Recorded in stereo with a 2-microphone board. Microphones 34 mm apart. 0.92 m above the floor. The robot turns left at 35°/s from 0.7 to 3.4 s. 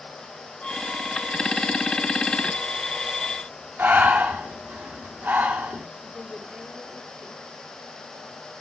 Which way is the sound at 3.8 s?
65° right (ahead or behind).